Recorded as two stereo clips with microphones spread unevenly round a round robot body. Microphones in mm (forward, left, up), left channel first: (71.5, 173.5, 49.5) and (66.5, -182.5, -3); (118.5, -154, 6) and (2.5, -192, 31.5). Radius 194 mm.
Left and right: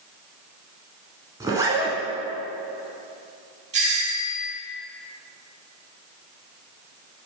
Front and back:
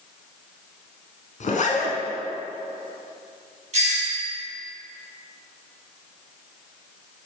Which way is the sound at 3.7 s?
150° right.